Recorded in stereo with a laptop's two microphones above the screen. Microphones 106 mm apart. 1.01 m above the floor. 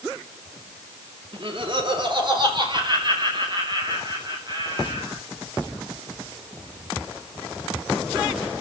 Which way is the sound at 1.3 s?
55° right (ahead or behind).